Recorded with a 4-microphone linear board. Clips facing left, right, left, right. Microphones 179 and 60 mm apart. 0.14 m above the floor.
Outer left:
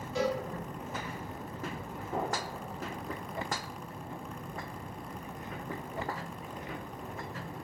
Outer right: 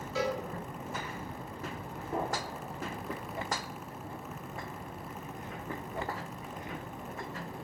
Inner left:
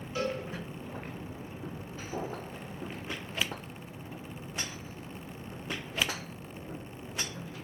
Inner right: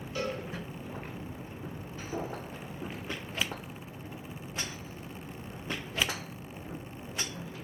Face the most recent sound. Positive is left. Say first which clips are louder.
# even, even
turn(degrees=-30)  # may be behind; listen again after turning